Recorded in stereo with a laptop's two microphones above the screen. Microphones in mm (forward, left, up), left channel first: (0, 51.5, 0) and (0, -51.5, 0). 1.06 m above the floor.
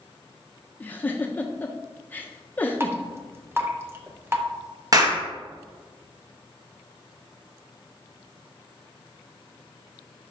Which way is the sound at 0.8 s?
20° left (ahead or behind).